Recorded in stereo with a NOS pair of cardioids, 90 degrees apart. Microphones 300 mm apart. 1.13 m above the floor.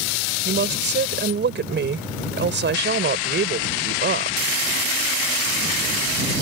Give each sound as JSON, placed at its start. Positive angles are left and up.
{"t": 0.5, "sound": "a woman speaking", "azimuth_deg": -40}